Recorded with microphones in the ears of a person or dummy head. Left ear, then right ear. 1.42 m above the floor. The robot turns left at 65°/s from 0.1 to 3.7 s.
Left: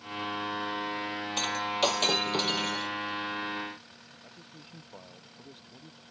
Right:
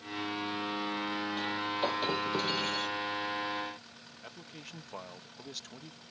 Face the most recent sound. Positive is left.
turn(degrees=-55)  # may be behind; listen again after turning